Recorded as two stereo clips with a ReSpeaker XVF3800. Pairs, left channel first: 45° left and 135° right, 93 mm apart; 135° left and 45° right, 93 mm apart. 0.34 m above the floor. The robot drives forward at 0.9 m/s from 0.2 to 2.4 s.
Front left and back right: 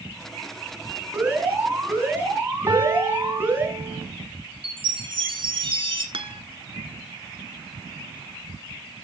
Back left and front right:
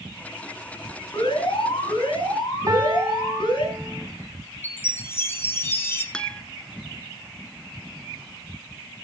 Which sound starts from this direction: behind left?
An alarm, at 1.1 s.